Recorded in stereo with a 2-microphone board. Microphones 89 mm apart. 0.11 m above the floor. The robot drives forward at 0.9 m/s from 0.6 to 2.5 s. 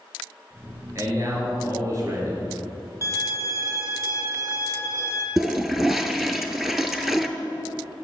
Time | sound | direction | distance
0.9 | a man speaking | 35° right (ahead or behind) | 2.5 m
3.0 | a violin | 35° right (ahead or behind) | 1.1 m
5.4 | a toilet flushing | 5° right (ahead or behind) | 0.5 m